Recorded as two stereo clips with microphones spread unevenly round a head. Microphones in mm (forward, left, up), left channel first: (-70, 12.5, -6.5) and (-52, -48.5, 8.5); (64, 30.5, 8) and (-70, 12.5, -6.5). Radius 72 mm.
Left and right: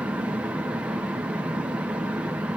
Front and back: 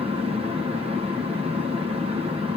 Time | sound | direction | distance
0.0 | a fan | 150° right | 1.5 m